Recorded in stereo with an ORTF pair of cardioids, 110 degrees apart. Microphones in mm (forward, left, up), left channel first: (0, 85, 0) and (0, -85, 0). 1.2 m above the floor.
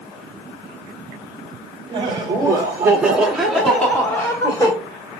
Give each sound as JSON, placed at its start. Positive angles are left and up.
{"t": 1.9, "sound": "laughter", "azimuth_deg": -30, "distance_m": 1.8}